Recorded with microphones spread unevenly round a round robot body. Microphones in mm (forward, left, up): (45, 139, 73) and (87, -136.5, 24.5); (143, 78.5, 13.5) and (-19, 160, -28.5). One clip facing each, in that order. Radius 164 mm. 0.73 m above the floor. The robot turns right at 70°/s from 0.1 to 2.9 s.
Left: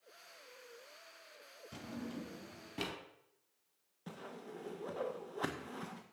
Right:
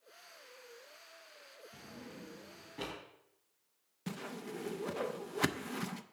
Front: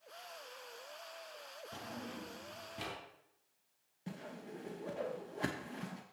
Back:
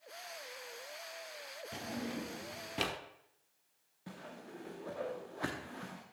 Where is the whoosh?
105° right, 0.6 m.